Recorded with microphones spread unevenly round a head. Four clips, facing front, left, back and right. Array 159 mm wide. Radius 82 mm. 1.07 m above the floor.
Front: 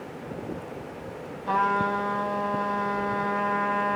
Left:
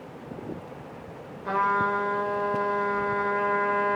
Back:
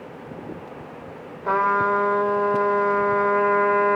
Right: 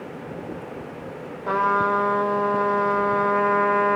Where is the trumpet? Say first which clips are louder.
Right 4 dB, back 4 dB; 165° right, 4.5 m.